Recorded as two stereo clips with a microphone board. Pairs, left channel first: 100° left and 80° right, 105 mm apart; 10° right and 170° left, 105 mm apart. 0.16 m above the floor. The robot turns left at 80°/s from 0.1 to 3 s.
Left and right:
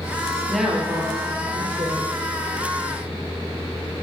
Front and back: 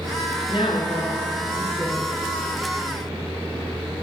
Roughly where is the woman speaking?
Ahead.